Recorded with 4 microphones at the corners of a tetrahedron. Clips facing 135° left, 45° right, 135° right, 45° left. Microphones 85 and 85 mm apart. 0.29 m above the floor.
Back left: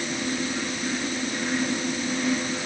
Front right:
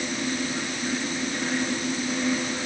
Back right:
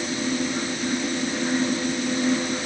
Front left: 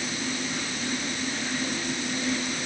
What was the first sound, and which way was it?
Only background noise.